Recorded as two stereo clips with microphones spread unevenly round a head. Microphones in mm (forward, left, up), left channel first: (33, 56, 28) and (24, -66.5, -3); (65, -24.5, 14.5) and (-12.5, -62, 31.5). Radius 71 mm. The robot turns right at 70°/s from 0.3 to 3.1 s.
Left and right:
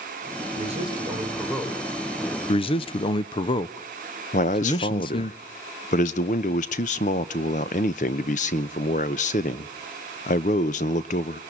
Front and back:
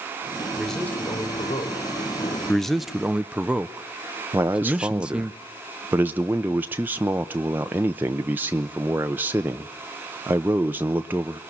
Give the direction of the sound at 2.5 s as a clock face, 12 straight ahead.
10 o'clock.